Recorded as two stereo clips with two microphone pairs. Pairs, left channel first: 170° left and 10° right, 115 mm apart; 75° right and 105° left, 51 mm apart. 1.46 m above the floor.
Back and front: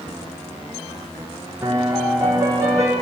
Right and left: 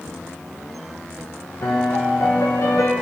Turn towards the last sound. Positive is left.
turn(degrees=-80)